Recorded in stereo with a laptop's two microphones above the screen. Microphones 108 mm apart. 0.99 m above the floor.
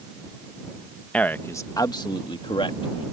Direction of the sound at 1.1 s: 10° left (ahead or behind).